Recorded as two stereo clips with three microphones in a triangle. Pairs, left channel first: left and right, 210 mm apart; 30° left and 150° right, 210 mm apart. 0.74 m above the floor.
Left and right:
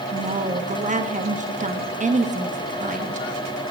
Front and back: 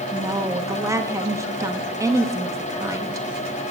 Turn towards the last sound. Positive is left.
turn(degrees=-85)